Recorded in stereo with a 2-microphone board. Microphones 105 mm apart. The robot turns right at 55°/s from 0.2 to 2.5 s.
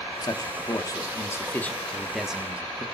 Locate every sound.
0.2 s a man speaking: 75° left, 0.9 m; by 2.8 s 160° right, 0.9 m